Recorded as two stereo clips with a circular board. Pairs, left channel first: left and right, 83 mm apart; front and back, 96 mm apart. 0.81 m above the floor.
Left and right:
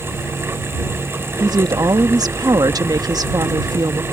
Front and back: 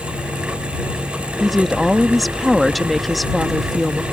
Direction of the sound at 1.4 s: 90° right.